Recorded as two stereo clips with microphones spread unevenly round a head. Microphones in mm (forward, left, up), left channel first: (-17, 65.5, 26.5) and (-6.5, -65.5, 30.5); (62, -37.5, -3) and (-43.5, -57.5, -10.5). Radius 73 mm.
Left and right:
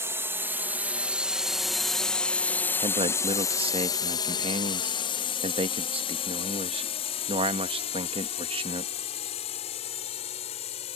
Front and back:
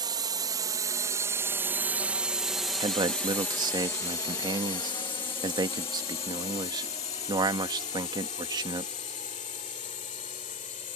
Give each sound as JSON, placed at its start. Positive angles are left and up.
{"t": 0.0, "sound": "a drone", "azimuth_deg": -150}
{"t": 2.8, "sound": "a man speaking", "azimuth_deg": -130}